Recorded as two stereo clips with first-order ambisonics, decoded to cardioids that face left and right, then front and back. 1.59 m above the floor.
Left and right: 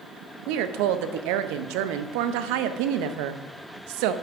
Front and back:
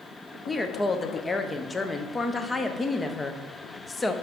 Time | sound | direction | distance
0.5 | a woman speaking | 80° right | 0.6 m